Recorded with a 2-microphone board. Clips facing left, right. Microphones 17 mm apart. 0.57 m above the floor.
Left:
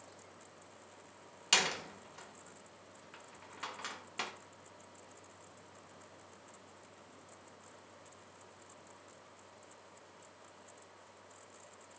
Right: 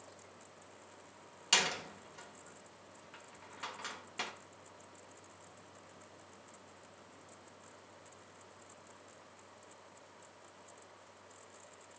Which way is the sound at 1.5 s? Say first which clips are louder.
Even; 5° left (ahead or behind).